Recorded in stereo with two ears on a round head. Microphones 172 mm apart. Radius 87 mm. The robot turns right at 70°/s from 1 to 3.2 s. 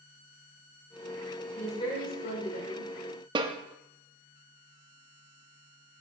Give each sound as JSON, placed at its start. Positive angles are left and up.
{"t": 1.6, "sound": "a woman speaking", "azimuth_deg": 5, "distance_m": 1.9}
{"t": 3.4, "sound": "a snare drum", "side_deg": -25, "distance_m": 0.8}